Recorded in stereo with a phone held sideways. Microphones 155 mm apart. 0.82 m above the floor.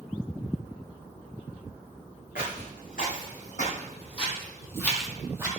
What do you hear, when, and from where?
2.4 s footsteps: 65° left (ahead or behind), 4.5 m; by 5.5 s 20° right (ahead or behind), 1.9 m